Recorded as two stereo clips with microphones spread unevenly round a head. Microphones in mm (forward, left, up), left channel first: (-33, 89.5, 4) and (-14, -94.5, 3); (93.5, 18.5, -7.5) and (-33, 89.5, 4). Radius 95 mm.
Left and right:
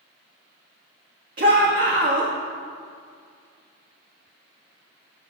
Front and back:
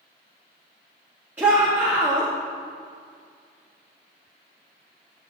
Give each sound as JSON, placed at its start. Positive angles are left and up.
{"t": 1.4, "sound": "a shout", "azimuth_deg": -130, "distance_m": 1.9}